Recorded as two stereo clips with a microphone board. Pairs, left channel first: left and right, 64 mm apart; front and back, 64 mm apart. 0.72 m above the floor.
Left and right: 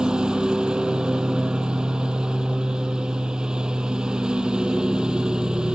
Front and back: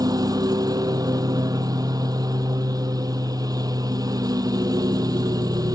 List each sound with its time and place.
0.0 s a lawn mower: 170° right